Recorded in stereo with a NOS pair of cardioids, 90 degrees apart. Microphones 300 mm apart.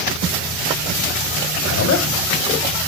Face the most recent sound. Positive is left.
turn(degrees=65)